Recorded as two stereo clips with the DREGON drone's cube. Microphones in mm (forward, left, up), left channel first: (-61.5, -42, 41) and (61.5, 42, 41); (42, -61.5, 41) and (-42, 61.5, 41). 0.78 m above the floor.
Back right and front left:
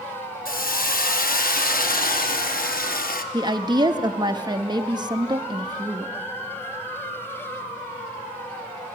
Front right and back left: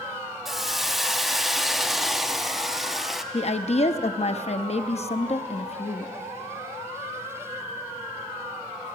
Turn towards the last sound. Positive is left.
turn(degrees=-20)